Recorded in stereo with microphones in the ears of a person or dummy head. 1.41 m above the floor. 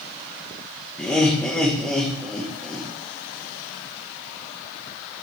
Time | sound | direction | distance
1.0 | laughter | 10° left (ahead or behind) | 1.8 m